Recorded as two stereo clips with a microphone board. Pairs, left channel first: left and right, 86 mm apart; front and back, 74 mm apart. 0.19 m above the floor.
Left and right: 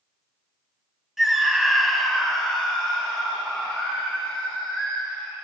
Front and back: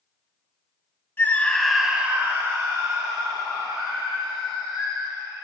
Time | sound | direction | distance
1.2 | a scream | 5° right | 1.7 m